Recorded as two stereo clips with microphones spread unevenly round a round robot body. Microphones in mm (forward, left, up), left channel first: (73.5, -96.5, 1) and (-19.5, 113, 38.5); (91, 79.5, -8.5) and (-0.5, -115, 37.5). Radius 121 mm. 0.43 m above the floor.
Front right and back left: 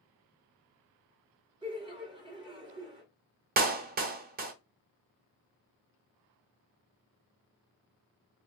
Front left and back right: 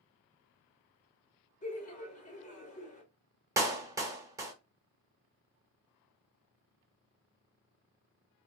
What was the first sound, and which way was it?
Laughter, 40° left.